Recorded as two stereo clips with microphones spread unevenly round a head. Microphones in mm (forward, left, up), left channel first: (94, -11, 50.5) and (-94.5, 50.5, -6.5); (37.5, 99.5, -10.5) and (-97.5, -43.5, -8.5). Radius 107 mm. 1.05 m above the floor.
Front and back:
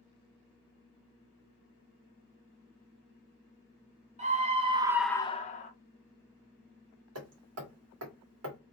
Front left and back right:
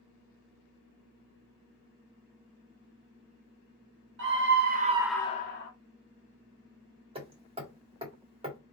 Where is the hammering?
165° left, 1.5 m.